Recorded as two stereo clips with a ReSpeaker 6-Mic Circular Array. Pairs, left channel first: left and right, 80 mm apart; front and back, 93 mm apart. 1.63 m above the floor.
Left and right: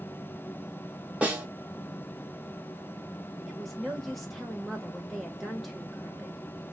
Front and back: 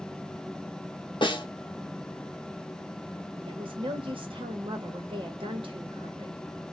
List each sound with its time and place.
1.2 s a snare drum: 20° right, 0.9 m
3.5 s a woman speaking: straight behind, 1.0 m